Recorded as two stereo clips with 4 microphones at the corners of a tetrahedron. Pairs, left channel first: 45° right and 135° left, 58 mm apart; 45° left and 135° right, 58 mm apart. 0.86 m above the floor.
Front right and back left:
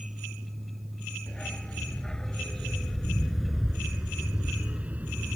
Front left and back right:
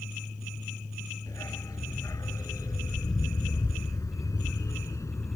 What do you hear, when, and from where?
1.3 s a dog barking: 25° left; by 5.4 s 80° left